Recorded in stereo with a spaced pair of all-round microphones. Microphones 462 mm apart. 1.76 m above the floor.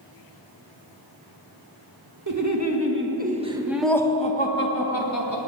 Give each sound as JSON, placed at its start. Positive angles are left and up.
{"t": 2.3, "sound": "laughter", "side_deg": -40, "distance_m": 1.9}